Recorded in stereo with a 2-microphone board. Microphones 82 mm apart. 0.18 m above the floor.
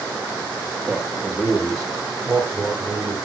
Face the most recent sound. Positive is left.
turn(degrees=-5)  # may be behind; listen again after turning